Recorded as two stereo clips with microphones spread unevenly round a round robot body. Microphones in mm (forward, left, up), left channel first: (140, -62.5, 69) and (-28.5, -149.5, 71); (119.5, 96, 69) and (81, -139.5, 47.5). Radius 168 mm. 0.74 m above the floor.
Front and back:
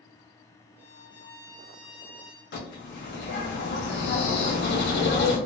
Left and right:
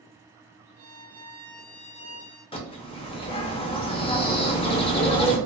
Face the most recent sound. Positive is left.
turn(degrees=20)